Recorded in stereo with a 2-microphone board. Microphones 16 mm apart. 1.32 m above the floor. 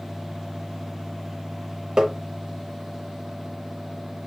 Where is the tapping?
50° right (ahead or behind), 1.0 m.